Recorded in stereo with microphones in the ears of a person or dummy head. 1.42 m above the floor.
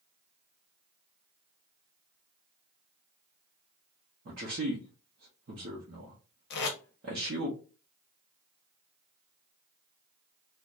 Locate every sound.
4.2 s a man speaking: 50° right (ahead or behind), 0.6 m
6.5 s tape being pulled: 50° left (ahead or behind), 0.6 m